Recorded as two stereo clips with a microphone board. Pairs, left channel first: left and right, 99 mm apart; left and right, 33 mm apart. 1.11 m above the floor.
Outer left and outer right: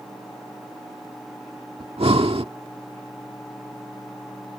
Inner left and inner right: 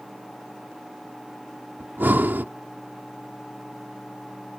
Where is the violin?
No violin in this recording.